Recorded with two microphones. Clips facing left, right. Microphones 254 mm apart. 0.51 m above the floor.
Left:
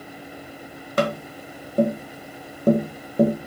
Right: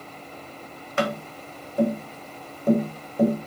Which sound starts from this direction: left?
Tapping, at 1.0 s.